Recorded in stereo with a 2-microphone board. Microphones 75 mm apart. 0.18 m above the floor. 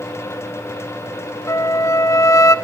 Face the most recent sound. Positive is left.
turn(degrees=45)  # may be behind; listen again after turning